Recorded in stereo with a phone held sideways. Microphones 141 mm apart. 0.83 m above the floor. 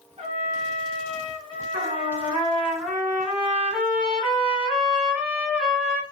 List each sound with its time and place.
0.2 s a trumpet: 40° right (ahead or behind), 1.6 m
1.7 s a trumpet: 10° right (ahead or behind), 2.5 m